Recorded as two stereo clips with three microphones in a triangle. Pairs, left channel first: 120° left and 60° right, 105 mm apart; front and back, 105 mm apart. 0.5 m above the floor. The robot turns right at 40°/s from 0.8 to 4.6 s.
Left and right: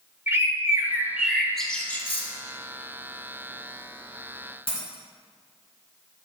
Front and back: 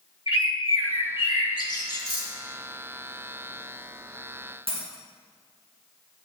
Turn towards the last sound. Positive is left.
turn(degrees=150)